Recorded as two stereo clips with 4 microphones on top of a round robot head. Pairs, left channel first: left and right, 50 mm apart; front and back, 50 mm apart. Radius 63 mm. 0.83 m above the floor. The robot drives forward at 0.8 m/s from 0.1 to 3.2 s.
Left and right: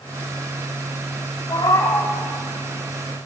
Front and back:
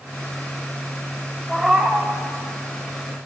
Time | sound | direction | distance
1.5 | a cat meowing | 90° left | 1.6 m